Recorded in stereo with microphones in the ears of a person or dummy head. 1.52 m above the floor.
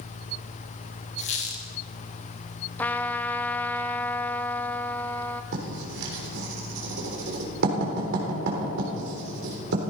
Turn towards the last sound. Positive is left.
turn(degrees=-65)  # may be behind; listen again after turning